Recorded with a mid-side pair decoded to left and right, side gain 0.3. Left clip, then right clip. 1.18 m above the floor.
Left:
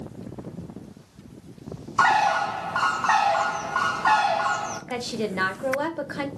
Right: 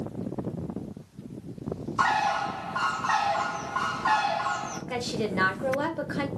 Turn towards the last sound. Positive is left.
turn(degrees=25)